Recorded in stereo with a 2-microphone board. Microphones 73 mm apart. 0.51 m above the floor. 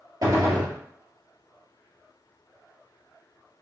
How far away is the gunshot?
About 1.7 m.